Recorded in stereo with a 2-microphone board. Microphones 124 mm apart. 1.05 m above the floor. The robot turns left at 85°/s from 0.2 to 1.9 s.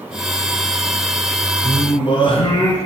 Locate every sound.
1.6 s singing: 20° left (ahead or behind), 3.5 m; by 2.8 s 45° left (ahead or behind), 3.5 m